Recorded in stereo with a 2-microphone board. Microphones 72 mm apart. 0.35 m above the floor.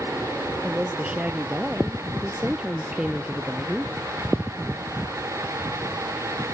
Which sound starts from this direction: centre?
A woman speaking, at 0.6 s.